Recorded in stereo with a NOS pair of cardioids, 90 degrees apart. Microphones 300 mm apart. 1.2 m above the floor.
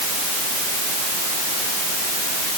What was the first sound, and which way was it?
Only background noise.